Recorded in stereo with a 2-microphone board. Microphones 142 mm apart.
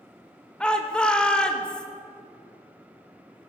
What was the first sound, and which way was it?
A shout, 5° left (ahead or behind).